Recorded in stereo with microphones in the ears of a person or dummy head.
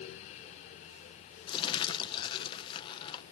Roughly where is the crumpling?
Left.